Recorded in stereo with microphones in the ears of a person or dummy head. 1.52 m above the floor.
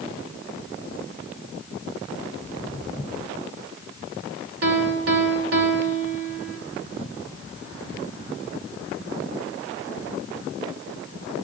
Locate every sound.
2.4 s footsteps: 5° left (ahead or behind), 2.5 m
4.6 s a piano: 65° right (ahead or behind), 4.5 m